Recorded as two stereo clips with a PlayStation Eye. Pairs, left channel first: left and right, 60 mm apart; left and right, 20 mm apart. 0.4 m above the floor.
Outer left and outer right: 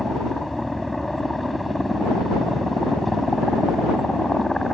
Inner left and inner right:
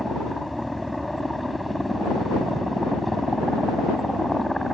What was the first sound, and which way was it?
A helicopter, centre (ahead or behind).